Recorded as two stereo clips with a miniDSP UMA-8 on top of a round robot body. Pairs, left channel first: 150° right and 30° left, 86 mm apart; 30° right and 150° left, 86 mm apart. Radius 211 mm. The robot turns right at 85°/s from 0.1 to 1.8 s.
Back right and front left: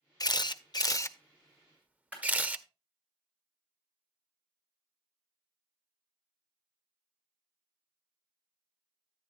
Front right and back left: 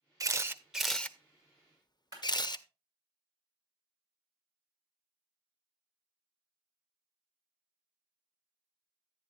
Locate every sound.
0.2 s a camera shutter: 175° right, 0.9 m; by 2.6 s 40° right, 0.9 m
2.1 s a clap: 100° left, 6.5 m